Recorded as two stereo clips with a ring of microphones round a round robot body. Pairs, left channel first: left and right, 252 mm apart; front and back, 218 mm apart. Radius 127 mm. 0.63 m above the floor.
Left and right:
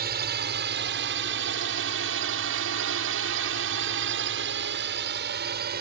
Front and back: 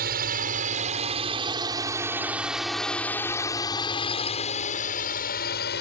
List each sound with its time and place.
0.0 s a drone: 135° right; by 5.8 s 45° right